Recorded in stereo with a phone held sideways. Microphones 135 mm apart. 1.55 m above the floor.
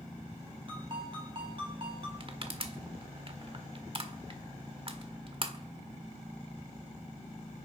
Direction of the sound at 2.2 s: 40° right (ahead or behind).